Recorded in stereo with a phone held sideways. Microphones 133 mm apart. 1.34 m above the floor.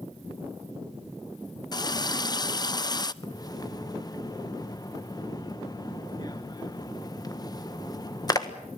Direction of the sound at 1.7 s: 30° left (ahead or behind).